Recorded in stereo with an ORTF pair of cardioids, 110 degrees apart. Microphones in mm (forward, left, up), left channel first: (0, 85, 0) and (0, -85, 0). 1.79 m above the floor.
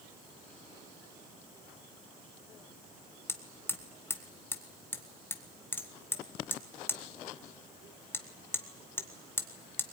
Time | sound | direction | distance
3.3 | hammering | 15° left | 1.7 m